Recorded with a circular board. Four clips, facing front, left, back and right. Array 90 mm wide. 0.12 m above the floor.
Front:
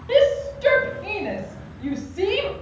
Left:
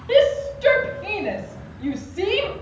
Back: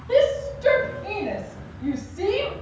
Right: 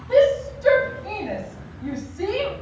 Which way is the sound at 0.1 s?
60° left.